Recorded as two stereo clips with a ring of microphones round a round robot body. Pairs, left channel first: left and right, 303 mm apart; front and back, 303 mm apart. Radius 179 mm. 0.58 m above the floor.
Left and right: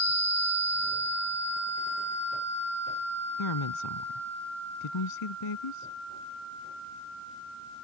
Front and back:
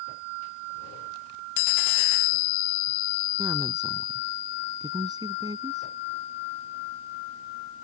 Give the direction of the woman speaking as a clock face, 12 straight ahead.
9 o'clock.